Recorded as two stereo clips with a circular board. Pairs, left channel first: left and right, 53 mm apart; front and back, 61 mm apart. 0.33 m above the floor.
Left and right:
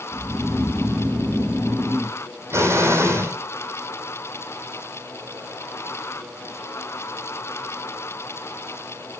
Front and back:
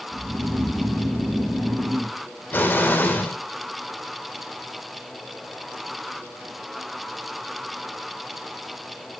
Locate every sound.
0.1 s snoring: 165° right, 4.5 m
2.5 s an explosion: 60° right, 3 m